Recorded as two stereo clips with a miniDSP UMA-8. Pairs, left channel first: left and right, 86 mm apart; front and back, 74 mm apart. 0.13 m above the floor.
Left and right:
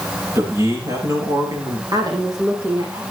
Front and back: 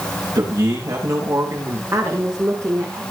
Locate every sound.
0.3 s a man speaking: 145° right, 9.5 m; by 1.8 s 140° right, 9 m
1.9 s a woman speaking: 135° right, 5.5 m